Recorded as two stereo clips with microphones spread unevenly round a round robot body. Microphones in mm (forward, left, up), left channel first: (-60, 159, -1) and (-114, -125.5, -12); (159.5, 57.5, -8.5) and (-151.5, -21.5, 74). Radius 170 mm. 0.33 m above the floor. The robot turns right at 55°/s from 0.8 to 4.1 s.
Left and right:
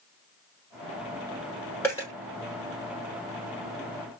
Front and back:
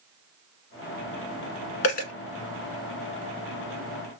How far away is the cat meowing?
No cat meowing in this recording.